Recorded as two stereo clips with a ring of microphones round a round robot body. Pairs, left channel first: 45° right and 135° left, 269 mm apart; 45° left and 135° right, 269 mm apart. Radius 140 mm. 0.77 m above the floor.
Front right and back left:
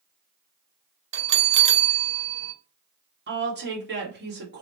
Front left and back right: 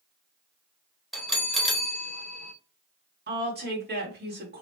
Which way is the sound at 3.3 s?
Straight behind.